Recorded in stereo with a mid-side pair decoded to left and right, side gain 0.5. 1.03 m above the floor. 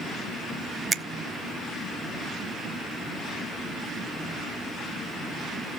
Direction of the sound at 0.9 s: 25° right.